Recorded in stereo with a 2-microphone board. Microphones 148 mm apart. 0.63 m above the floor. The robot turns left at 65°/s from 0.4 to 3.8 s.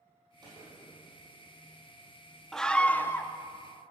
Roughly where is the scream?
Centre.